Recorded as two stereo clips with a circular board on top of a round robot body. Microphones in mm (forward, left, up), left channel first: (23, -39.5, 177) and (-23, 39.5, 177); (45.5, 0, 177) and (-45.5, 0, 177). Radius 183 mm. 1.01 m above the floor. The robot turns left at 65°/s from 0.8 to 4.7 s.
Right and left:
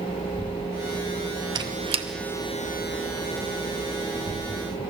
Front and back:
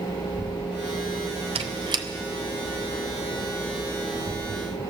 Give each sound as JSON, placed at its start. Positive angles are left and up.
{"t": 1.6, "sound": "a squeak", "azimuth_deg": 165, "distance_m": 0.6}